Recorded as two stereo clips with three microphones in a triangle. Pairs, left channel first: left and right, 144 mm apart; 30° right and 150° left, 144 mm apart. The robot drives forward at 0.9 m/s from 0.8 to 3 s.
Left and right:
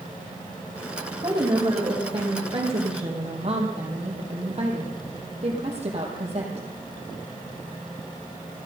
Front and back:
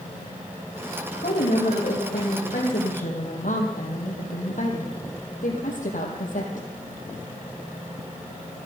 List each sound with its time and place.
1.1 s a woman speaking: 35° right, 5 m; by 6.7 s 50° right, 4 m